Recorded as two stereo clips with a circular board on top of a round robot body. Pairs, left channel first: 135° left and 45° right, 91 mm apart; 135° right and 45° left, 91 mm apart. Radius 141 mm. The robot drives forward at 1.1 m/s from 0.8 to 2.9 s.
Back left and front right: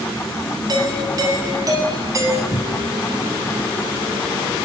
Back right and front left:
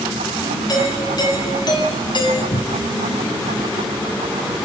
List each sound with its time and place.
0.7 s a doorbell: 90° right, 8 m; by 2.4 s 100° right, 8.5 m
2.5 s a cupboard door: 175° right, 1.2 m; by 2.9 s straight behind, 1.6 m